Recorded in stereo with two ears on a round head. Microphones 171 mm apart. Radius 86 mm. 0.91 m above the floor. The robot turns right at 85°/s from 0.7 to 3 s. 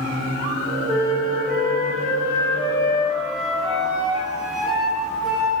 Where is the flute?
Straight ahead, 2 m; by 5.5 s straight behind, 2 m.